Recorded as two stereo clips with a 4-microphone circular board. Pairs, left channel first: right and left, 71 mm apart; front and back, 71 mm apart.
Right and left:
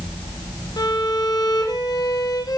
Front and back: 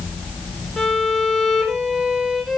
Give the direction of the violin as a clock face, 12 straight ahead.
3 o'clock.